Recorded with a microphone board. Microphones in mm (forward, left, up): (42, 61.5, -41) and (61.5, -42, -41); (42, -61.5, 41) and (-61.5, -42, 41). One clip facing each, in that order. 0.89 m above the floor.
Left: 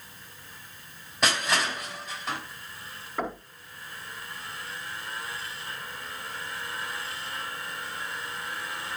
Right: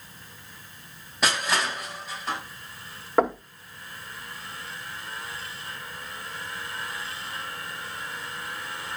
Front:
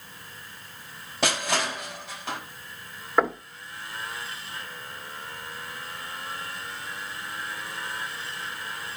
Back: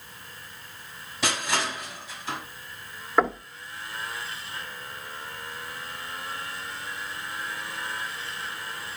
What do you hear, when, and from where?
1.2 s crushing: 10° left, 4.5 m
3.2 s knocking: 100° right, 1.9 m